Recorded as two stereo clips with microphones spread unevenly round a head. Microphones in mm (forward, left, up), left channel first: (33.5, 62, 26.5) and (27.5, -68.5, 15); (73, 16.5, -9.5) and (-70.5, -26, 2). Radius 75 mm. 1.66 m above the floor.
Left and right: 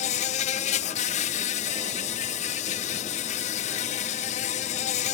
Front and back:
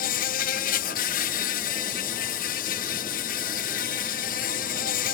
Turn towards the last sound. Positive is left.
turn(degrees=55)